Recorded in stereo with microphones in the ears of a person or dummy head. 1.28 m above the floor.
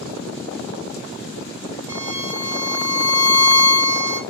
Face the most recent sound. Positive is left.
turn(degrees=-15)  # may be behind; listen again after turning